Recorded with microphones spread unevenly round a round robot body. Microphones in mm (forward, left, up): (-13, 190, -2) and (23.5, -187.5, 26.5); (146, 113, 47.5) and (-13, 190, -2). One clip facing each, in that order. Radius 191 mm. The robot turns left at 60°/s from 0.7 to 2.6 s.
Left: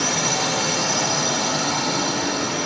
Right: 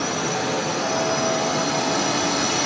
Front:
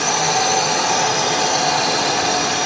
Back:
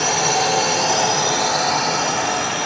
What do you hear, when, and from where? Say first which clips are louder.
0.0 s a drone: right 1 dB, even; 90° left; by 2.7 s 20° right